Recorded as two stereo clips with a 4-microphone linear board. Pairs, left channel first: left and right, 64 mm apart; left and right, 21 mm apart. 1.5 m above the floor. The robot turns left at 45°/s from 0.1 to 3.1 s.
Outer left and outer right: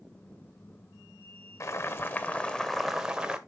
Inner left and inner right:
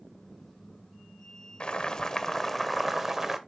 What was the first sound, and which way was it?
Boiling, 55° left.